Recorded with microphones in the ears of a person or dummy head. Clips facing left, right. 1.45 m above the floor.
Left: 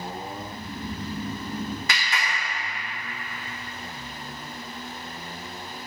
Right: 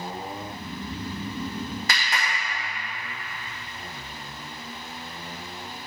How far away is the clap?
About 1.6 m.